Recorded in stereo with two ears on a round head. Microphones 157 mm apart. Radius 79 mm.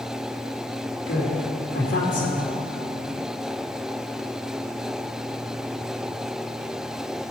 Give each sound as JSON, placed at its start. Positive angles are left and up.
{"t": 1.1, "sound": "a woman speaking", "side_deg": 65, "distance_m": 3.0}